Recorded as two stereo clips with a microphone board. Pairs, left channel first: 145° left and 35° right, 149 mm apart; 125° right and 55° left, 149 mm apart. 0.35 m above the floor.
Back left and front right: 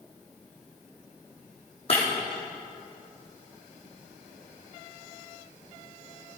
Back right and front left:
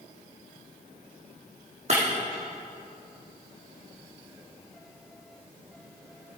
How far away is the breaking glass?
About 3.5 m.